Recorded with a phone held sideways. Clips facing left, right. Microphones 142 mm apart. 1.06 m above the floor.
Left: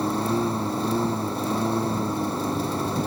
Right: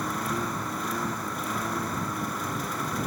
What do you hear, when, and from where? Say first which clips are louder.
0.0 s a lawn mower: left 7 dB; 30° left (ahead or behind)